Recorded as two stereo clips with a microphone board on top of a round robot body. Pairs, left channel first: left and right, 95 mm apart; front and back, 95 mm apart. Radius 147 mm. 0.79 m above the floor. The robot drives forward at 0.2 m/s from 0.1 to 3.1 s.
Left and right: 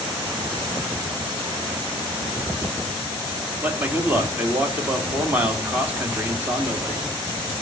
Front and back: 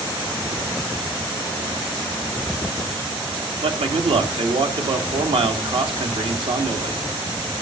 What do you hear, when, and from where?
3.6 s a man speaking: 160° right, 2 m